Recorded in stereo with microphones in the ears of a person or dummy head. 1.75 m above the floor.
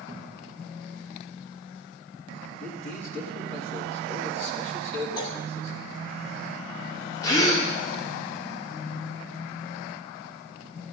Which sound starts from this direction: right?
A cupboard door, at 0.1 s.